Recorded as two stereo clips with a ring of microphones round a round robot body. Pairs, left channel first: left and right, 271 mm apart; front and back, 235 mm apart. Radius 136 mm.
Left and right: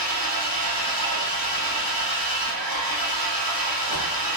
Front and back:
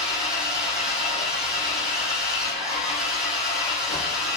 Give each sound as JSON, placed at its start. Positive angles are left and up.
{"t": 0.0, "sound": "an engine running", "azimuth_deg": 95, "distance_m": 5.0}